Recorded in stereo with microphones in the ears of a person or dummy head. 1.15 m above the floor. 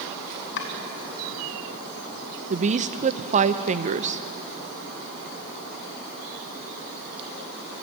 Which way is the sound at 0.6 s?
60° left (ahead or behind).